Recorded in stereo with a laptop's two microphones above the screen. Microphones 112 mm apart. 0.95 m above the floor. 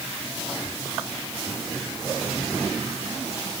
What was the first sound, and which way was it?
Only background noise.